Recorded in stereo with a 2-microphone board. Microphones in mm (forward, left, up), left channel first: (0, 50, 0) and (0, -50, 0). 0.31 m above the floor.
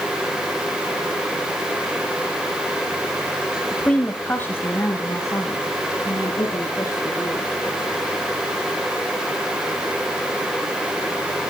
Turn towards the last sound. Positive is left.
turn(degrees=35)  # may be behind; listen again after turning